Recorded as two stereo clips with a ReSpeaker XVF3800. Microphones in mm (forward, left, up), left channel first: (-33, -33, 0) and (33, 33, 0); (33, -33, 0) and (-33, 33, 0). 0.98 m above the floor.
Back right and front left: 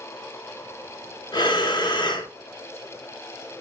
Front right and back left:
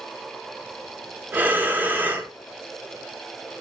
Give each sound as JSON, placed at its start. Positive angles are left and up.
{"t": 1.3, "sound": "breathing", "azimuth_deg": -160, "distance_m": 0.8}